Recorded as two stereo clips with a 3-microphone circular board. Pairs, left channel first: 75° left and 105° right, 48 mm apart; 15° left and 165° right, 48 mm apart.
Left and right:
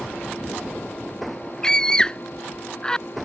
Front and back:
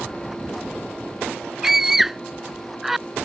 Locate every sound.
1.6 s a scream: 120° left